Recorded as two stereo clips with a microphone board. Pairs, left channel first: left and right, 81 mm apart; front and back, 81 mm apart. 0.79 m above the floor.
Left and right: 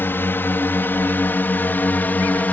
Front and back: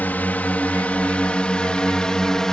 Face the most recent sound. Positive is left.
turn(degrees=75)